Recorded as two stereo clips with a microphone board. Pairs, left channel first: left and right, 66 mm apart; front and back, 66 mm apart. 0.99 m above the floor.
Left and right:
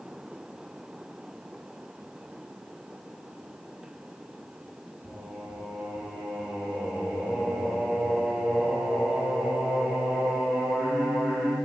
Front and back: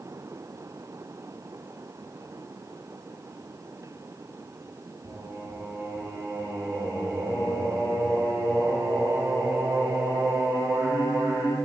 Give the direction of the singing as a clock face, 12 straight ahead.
6 o'clock.